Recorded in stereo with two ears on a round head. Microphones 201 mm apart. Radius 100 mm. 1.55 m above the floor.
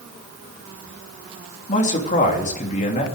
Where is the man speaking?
35° left (ahead or behind), 3 m.